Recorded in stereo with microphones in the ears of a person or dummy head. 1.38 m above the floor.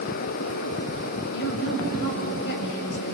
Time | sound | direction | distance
1.3 | a woman speaking | 60° left (ahead or behind) | 6 m